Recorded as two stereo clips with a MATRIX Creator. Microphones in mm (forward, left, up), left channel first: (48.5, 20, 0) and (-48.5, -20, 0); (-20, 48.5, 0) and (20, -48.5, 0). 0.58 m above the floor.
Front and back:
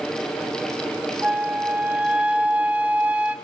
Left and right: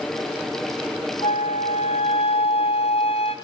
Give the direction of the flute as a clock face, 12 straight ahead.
8 o'clock.